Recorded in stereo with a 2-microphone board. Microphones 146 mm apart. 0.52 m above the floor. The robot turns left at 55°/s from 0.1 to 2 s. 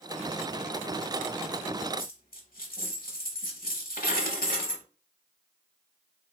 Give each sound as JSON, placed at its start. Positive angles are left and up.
{"t": 2.0, "sound": "a dropped coin", "side_deg": 85, "distance_m": 0.8}